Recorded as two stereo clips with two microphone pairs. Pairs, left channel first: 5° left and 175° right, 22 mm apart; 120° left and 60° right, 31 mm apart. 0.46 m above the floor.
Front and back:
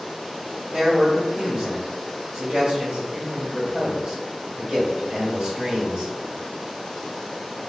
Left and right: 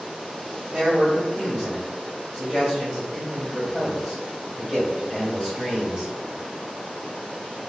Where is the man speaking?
120° right, 1.9 m.